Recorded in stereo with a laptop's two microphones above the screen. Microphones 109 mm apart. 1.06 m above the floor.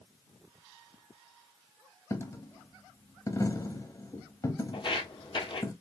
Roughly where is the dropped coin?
Left.